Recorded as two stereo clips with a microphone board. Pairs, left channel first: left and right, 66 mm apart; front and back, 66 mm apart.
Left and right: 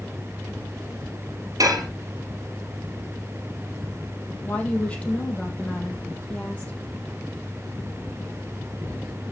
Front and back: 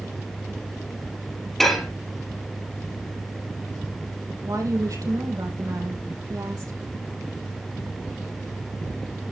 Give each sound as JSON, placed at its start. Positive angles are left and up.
{"t": 1.6, "sound": "dishes clattering", "azimuth_deg": -85, "distance_m": 2.0}
{"t": 4.4, "sound": "a woman speaking", "azimuth_deg": 160, "distance_m": 3.5}